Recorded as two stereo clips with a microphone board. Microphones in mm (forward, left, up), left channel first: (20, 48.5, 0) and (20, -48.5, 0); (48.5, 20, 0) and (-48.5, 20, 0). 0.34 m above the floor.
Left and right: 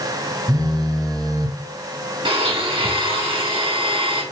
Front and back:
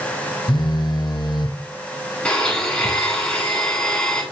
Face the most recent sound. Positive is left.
turn(degrees=-80)